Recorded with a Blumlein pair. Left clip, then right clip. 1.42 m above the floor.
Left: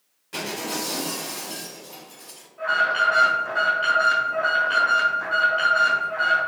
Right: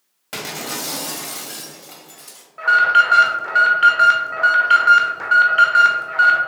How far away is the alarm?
About 1.2 m.